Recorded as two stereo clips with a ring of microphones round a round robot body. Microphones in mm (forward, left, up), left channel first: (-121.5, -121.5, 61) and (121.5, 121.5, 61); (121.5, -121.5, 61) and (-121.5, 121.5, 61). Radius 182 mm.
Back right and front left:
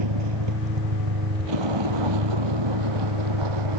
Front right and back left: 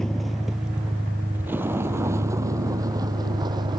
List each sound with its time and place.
0.0 s a vehicle: 45° left; by 3.8 s 55° left